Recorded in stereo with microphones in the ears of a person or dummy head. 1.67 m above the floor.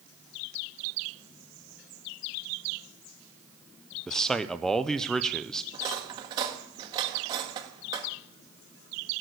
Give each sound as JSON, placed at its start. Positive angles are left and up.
{"t": 4.1, "sound": "a man speaking", "side_deg": -5, "distance_m": 0.6}
{"t": 5.7, "sound": "cutlery clinking", "side_deg": -30, "distance_m": 1.5}